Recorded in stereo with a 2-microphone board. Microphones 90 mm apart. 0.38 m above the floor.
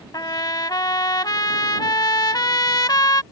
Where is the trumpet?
50° left (ahead or behind).